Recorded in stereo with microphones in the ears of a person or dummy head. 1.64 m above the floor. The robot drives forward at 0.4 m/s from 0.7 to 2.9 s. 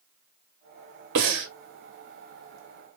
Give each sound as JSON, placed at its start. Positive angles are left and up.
{"t": 1.1, "sound": "breathing", "side_deg": -60, "distance_m": 0.8}